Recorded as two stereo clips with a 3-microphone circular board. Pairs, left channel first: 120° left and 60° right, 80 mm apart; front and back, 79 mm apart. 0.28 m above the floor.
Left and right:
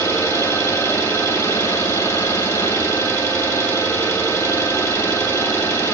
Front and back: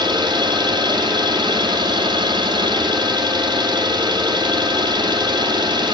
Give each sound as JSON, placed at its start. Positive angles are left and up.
{"t": 0.0, "sound": "an engine running", "azimuth_deg": 175, "distance_m": 2.0}